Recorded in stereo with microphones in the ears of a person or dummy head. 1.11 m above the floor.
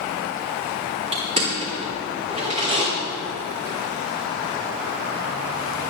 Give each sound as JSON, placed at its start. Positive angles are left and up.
{"t": 1.1, "sound": "crushing", "side_deg": -35, "distance_m": 3.0}